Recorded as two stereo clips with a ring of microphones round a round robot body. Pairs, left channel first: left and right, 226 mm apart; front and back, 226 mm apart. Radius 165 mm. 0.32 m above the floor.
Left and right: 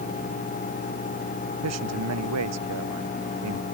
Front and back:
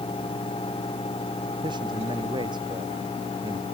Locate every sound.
1.6 s a man speaking: 105° right